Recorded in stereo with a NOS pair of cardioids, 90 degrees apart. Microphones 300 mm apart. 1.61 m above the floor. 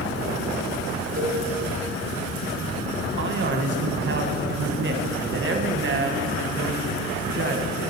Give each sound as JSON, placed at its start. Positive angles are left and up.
{"t": 1.2, "sound": "a cowbell", "azimuth_deg": -25, "distance_m": 1.7}
{"t": 3.2, "sound": "a man speaking", "azimuth_deg": -40, "distance_m": 1.3}